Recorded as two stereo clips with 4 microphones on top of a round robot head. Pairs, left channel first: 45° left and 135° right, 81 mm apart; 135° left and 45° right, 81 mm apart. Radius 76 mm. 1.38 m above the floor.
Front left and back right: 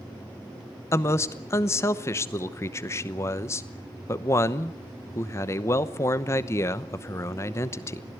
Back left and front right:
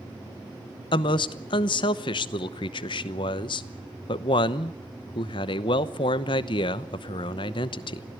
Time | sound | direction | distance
0.9 | a man speaking | 105° left | 0.9 m